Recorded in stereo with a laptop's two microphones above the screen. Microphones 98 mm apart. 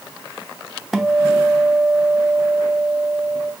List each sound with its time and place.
0.9 s a guitar: centre (ahead or behind), 0.7 m